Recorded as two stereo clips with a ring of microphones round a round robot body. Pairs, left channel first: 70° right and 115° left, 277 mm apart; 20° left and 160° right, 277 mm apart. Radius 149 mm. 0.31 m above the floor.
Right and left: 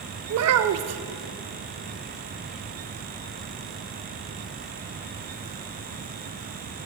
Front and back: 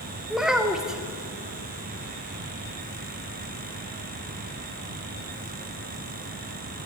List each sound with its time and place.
0.3 s a child speaking: 115° left, 0.7 m